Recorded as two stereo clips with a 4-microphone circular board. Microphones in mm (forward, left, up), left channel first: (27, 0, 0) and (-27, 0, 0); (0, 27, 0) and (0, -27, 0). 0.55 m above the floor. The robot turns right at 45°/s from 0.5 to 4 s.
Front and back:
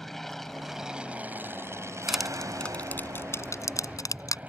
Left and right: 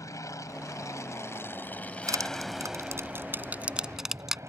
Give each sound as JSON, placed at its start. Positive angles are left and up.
{"t": 0.0, "sound": "an aircraft", "azimuth_deg": 85}
{"t": 2.1, "sound": "crushing", "azimuth_deg": -95}